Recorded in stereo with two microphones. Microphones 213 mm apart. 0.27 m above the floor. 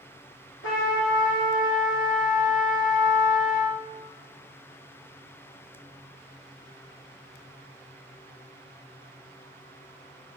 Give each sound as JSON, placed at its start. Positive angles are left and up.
{"t": 0.6, "sound": "a trumpet", "side_deg": 80, "distance_m": 2.5}